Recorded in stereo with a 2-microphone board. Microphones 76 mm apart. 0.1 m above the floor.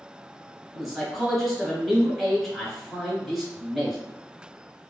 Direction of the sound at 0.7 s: Centre (ahead or behind).